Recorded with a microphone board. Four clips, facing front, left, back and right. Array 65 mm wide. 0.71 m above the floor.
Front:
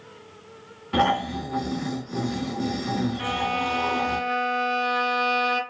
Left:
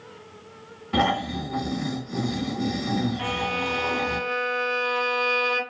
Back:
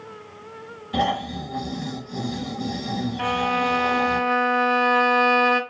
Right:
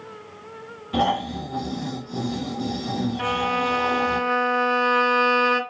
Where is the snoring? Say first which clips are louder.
Right 1 dB, front 2 dB; 25° left, 1.9 m.